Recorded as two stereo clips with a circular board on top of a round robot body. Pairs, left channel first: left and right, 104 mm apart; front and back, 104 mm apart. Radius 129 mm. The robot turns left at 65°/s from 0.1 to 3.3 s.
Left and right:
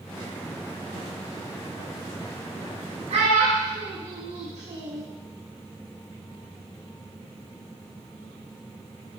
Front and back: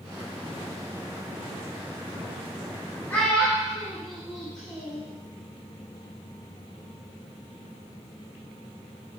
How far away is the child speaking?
About 0.7 m.